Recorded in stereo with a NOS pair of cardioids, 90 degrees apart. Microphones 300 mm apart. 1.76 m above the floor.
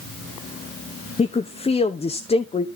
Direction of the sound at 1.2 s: 20° left.